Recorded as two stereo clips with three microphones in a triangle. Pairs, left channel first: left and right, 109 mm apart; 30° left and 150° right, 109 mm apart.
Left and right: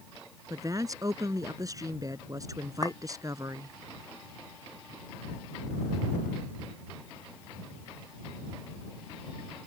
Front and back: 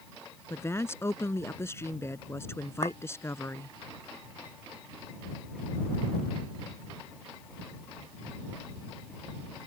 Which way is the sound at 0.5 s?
35° right.